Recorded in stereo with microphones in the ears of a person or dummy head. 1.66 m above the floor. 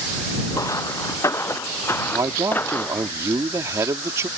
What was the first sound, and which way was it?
Footsteps, 20° left (ahead or behind).